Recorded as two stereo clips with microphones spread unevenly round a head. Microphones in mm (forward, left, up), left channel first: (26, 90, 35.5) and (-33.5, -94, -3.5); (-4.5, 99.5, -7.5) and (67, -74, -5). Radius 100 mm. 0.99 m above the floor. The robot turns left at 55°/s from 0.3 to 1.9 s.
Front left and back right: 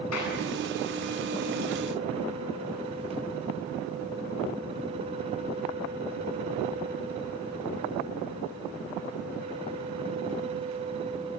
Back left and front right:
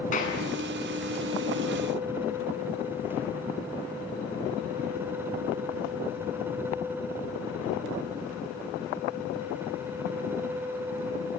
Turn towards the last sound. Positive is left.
turn(degrees=-25)